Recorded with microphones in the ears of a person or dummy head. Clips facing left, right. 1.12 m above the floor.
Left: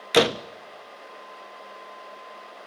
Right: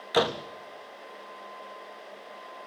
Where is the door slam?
30° left (ahead or behind), 0.7 m.